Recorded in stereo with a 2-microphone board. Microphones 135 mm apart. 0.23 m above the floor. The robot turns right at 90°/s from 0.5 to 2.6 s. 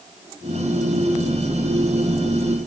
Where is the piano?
I don't hear a piano.